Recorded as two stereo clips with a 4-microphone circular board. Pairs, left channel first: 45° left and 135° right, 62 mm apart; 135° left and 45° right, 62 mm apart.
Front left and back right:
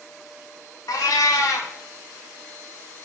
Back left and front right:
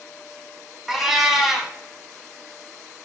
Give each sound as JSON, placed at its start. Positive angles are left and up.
{"t": 0.9, "sound": "a cat meowing", "azimuth_deg": 40, "distance_m": 0.6}